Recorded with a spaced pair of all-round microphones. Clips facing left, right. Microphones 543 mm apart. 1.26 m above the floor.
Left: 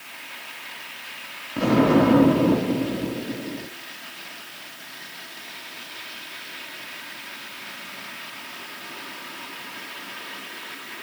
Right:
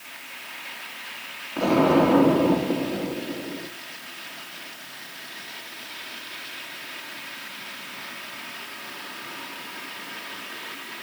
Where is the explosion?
40° left (ahead or behind), 1.2 m.